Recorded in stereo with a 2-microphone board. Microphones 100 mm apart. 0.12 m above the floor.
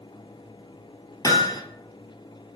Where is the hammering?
40° left (ahead or behind), 1.0 m.